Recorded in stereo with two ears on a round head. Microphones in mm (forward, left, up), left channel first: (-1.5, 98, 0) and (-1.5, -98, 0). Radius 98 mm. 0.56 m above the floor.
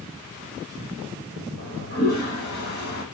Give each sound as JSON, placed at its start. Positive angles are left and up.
{"t": 1.6, "sound": "a toilet flushing", "side_deg": 50, "distance_m": 5.5}